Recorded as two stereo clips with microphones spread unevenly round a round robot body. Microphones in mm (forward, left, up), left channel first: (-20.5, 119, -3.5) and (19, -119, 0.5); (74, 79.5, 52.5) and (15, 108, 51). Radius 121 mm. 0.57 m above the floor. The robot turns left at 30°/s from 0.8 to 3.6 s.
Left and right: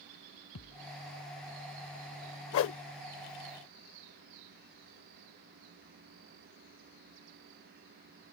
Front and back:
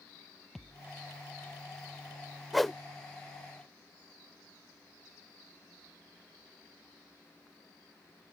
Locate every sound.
0.6 s a thud: 60° left; by 0.9 s 55° left
2.5 s a whoosh: 65° left; by 2.8 s 55° left